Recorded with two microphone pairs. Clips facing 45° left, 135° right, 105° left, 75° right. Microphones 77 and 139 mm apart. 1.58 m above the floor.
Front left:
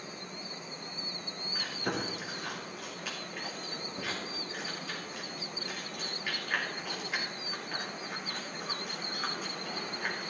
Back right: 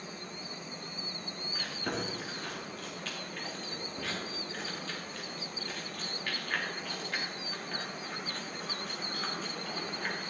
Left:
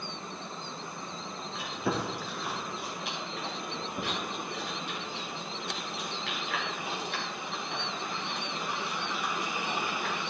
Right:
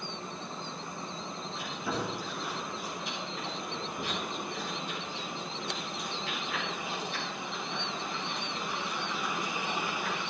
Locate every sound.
1.5 s chewing: 130° left, 2.5 m